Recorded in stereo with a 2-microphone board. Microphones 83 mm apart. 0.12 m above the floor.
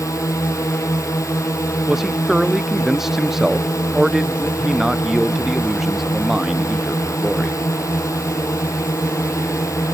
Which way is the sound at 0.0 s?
40° left (ahead or behind).